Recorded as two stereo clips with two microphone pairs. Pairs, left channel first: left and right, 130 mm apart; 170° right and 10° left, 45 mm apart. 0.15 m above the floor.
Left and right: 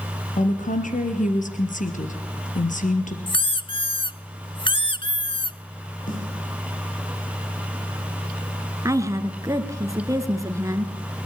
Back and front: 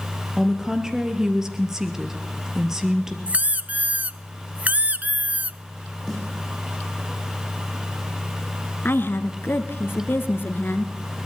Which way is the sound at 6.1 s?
105° left.